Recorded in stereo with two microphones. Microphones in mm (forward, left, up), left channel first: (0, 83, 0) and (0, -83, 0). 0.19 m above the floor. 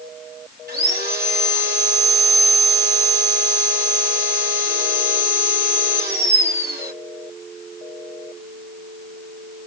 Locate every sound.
0.7 s sawing: 80° right, 3 m